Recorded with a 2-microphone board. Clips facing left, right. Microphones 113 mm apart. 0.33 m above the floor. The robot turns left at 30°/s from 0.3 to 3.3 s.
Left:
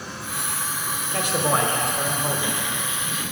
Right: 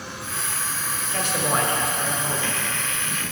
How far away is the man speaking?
About 1.3 m.